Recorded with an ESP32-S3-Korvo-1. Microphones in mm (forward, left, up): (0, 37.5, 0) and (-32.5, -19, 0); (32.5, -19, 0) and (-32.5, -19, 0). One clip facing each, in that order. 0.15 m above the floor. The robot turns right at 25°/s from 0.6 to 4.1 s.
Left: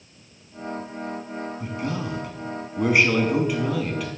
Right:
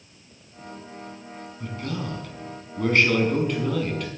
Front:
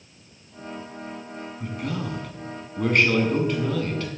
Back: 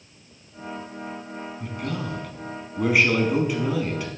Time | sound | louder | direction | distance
1.6 | a man speaking | even, front 1 dB | 75° left | 1.1 m